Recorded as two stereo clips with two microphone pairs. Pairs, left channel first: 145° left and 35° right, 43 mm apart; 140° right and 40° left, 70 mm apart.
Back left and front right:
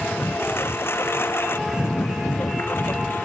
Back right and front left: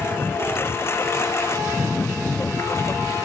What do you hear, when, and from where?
0.0 s a lawn mower: 165° left; by 3.2 s 175° left